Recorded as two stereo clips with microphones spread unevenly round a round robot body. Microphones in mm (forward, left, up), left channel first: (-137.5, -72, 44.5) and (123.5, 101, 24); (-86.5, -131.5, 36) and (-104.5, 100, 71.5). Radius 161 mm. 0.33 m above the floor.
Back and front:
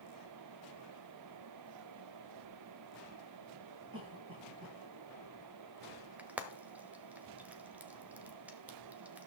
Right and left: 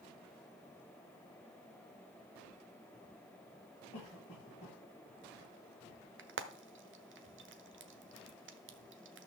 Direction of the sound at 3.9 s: 20° right.